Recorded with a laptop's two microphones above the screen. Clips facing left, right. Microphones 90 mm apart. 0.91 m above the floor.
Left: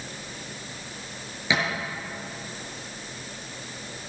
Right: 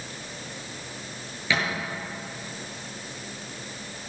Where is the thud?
15° left (ahead or behind), 6.5 m.